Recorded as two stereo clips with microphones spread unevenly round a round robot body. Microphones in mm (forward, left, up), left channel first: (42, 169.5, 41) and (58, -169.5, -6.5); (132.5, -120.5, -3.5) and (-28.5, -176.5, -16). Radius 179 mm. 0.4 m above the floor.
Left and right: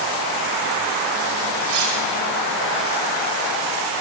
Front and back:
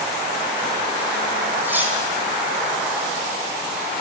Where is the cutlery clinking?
80° right, 9.5 m.